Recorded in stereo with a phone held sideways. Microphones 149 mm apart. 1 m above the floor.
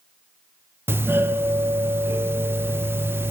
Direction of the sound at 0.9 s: 15° right (ahead or behind).